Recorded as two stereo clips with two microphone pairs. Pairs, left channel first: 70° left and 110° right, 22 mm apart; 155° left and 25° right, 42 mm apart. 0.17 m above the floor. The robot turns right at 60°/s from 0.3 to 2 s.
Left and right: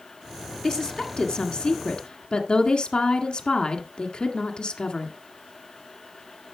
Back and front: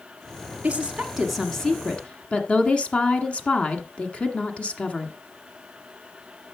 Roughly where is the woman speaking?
Ahead.